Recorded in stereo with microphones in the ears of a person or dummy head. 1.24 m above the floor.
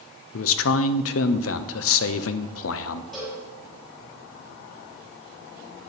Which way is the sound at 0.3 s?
75° left (ahead or behind).